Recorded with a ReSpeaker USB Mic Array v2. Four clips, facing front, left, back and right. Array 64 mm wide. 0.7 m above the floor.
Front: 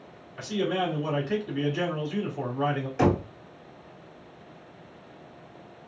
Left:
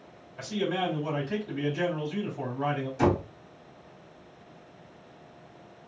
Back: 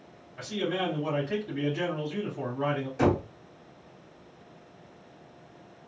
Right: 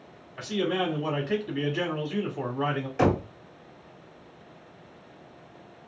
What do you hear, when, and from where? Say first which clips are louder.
0.4 s a man speaking: right 2 dB, front 3 dB; 65° right, 1.5 m
3.0 s knocking: right 1 dB, front 2 dB; 60° right, 1.4 m